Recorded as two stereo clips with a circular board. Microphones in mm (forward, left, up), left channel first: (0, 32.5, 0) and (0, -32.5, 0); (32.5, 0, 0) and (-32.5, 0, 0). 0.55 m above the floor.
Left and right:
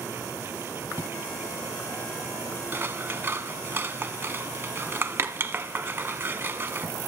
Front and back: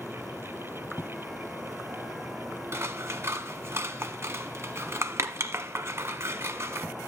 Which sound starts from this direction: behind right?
Scissors, at 2.7 s.